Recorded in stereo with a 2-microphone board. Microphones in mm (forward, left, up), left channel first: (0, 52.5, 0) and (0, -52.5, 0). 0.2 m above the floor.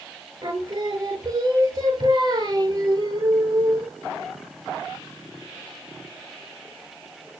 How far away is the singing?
About 0.6 m.